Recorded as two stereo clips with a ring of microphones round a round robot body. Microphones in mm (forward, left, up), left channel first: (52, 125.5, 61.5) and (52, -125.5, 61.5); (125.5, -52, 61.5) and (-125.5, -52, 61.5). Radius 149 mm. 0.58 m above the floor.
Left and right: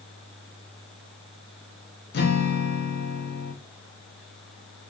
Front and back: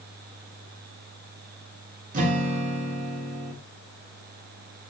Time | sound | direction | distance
2.1 | a guitar | 125° left | 0.7 m